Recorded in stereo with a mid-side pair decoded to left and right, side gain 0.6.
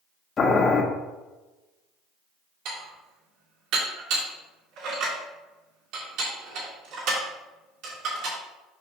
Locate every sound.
0.4 s boiling: 35° left, 1.8 m
2.6 s dishes clattering: 70° right, 3 m